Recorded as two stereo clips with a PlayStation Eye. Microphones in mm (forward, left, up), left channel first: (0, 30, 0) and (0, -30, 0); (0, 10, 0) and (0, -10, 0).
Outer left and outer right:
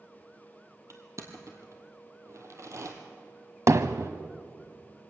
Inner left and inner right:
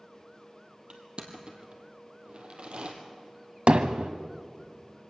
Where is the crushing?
50° right (ahead or behind), 2 m.